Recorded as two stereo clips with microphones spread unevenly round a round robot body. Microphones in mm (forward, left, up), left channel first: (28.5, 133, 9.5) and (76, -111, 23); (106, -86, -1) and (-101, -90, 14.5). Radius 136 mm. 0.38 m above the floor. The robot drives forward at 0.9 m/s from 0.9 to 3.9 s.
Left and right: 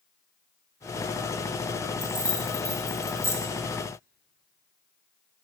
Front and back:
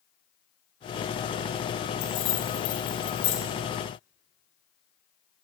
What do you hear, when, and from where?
2.0 s keys jangling: 15° left, 3 m; by 3.4 s 25° left, 1.7 m